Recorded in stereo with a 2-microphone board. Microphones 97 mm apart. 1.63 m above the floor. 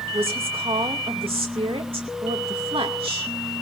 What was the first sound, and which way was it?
A woman speaking, 75° right (ahead or behind).